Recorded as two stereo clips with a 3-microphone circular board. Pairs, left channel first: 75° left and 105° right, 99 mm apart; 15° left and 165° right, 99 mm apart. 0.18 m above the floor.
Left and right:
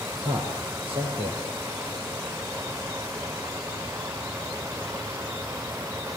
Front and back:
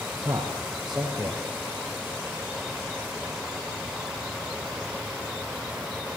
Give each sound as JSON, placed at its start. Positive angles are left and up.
{"t": 0.2, "sound": "a man speaking", "azimuth_deg": -80, "distance_m": 4.5}